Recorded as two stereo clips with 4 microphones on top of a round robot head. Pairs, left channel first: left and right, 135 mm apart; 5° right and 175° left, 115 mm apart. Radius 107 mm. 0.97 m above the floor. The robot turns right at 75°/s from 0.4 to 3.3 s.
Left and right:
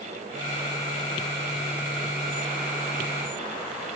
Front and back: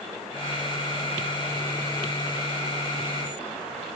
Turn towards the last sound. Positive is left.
No sound to turn to.